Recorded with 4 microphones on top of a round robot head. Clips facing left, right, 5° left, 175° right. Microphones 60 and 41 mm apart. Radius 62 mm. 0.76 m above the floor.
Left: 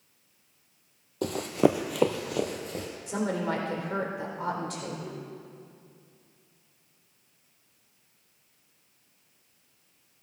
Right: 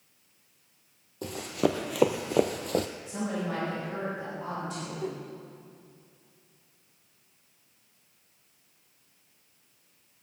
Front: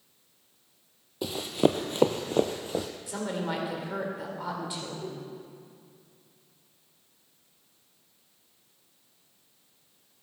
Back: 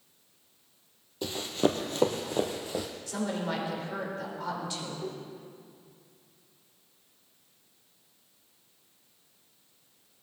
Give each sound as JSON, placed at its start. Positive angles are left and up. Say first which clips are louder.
{"t": 1.2, "sound": "running footsteps", "louder": "left 4 dB, front 3 dB", "azimuth_deg": 75, "distance_m": 0.9}
{"t": 3.1, "sound": "a woman speaking", "louder": "left 3 dB, back 1 dB", "azimuth_deg": 75, "distance_m": 3.5}
{"t": 5.0, "sound": "a whoosh", "louder": "right 4 dB, even", "azimuth_deg": -85, "distance_m": 2.0}